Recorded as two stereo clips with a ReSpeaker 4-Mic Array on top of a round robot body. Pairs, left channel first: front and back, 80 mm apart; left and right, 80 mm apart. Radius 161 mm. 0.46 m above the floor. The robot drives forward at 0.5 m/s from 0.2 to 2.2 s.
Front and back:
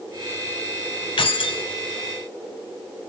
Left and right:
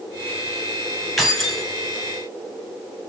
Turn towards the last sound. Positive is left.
turn(degrees=0)